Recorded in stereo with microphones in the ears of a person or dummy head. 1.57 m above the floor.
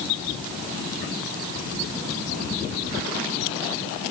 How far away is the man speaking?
I don't hear a man speaking.